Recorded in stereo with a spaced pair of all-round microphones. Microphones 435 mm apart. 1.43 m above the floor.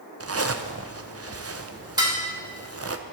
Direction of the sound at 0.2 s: 35° right (ahead or behind).